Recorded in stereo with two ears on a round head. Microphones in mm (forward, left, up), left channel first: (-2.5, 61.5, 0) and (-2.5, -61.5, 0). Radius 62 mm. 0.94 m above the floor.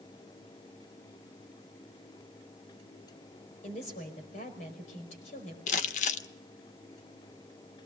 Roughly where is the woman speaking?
Left.